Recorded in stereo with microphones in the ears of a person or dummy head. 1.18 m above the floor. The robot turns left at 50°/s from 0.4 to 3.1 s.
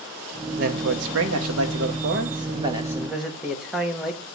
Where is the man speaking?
50° right, 1.8 m; by 4.2 s 175° right, 1.8 m.